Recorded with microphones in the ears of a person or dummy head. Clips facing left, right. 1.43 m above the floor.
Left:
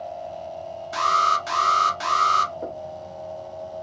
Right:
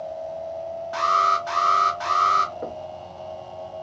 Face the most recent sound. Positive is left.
turn(degrees=-5)  # may be behind; listen again after turning